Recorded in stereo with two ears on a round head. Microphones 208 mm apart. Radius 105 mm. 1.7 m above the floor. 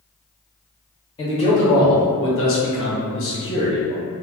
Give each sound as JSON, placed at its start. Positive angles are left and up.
{"t": 1.2, "sound": "a man speaking", "side_deg": 25, "distance_m": 1.0}